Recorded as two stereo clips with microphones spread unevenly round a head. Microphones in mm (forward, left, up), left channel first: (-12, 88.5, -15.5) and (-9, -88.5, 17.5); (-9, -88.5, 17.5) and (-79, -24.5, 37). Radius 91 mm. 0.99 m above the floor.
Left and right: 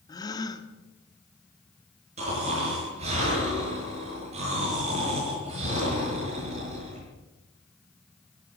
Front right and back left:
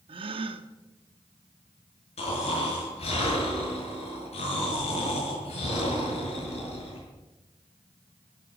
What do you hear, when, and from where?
0.1 s a gasp: 160° left, 1.1 m
2.2 s snoring: 35° right, 7.5 m